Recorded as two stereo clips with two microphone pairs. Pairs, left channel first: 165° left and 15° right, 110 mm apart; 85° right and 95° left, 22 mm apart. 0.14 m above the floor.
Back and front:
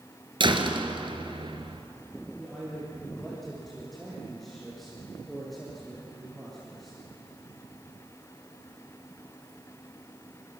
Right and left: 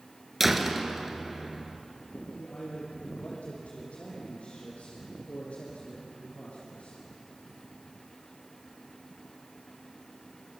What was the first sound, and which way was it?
A door slam, 15° left.